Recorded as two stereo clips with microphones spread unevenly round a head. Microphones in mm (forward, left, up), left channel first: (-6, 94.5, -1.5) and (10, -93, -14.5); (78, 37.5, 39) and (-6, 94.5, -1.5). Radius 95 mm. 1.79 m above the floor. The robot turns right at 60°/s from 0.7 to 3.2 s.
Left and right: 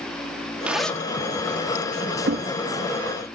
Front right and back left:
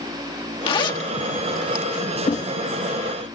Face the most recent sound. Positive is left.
turn(degrees=5)